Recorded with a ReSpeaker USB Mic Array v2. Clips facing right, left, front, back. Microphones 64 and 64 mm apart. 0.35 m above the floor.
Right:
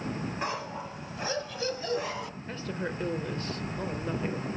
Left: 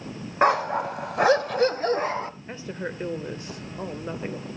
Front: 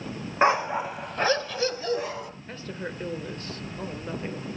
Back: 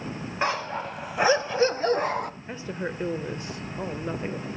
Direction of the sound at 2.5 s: 140° left.